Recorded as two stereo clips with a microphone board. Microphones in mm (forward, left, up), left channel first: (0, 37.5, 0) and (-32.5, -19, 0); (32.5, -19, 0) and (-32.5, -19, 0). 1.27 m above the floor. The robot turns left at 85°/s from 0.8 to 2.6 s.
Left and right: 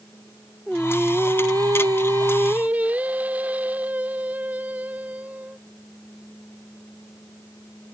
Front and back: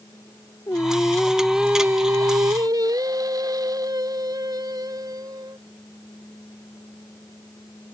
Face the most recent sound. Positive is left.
turn(degrees=175)